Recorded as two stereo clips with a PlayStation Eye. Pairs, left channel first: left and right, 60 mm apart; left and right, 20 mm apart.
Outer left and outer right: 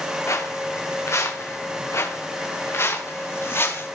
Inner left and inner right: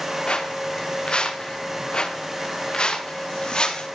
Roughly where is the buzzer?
No buzzer in this recording.